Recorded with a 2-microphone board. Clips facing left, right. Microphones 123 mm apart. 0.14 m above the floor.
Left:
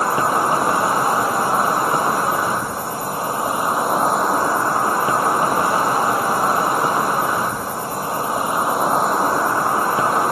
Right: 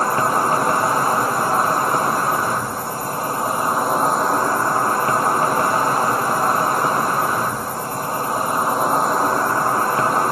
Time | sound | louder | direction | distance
0.0 | an insect | even | 10° left (ahead or behind) | 0.9 m